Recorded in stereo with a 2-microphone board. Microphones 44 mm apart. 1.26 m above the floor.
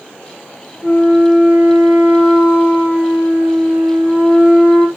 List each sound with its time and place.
0.8 s a flute: 30° right (ahead or behind), 7.5 m